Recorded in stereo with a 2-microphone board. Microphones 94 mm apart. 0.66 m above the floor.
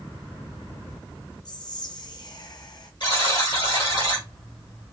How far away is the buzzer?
About 1.7 m.